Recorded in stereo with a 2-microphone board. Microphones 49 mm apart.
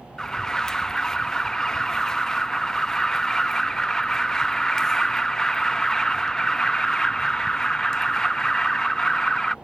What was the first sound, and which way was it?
An alarm, 15° left (ahead or behind).